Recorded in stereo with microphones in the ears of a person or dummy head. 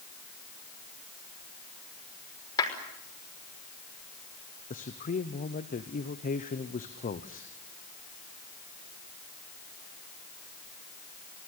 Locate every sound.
2.6 s a clap: 20° left (ahead or behind), 5.5 m
4.7 s a man speaking: 35° left (ahead or behind), 1.0 m